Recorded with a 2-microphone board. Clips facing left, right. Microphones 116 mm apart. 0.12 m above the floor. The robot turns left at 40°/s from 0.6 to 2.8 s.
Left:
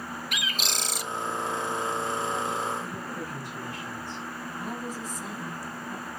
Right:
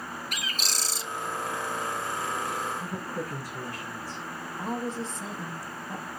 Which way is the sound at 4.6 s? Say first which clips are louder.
Right 5 dB; 30° right (ahead or behind).